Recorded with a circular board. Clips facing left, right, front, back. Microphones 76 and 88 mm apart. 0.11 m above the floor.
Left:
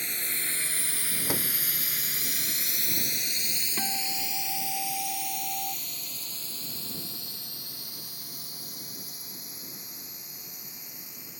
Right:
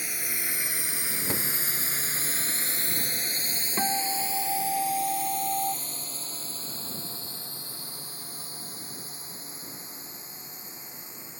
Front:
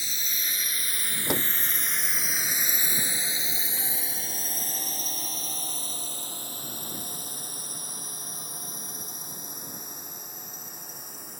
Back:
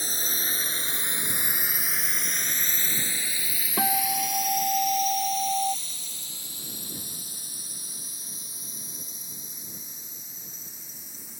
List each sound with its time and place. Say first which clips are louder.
0.0 s a drone: right 1 dB, back 4 dB; 170° right; by 11.4 s 30° right
1.3 s a door slam: left 1 dB, front 6 dB; 10° left
3.8 s a guitar: right 7 dB, back 12 dB; 150° right